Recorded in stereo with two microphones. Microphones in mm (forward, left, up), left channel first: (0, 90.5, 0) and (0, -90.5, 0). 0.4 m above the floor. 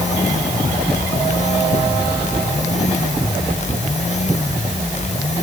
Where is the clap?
I don't hear a clap.